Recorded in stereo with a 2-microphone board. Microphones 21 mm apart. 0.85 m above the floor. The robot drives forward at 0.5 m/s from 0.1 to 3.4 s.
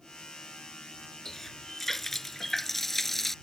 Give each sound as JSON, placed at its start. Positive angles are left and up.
{"t": 1.2, "sound": "a running tap", "side_deg": 10}